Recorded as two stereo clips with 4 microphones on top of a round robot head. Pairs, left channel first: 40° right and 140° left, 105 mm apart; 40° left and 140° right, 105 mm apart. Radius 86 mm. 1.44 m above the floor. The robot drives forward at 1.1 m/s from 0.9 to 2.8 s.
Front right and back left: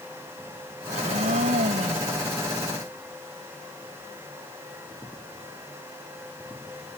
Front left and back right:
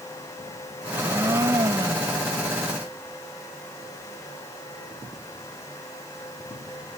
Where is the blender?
155° left; by 2.3 s 160° left.